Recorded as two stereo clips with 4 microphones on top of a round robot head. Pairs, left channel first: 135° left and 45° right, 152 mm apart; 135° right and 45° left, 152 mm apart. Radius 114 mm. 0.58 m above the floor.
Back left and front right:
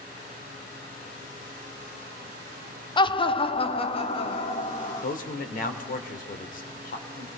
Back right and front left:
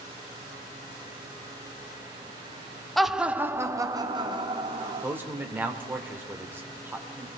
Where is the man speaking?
120° left, 2.5 m.